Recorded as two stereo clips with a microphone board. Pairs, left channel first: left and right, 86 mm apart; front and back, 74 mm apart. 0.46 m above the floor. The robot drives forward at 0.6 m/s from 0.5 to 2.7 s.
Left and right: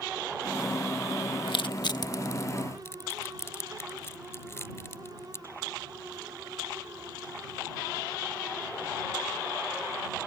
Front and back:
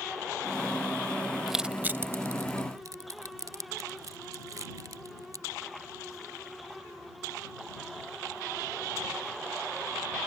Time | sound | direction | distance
1.5 | crushing | 90° left | ?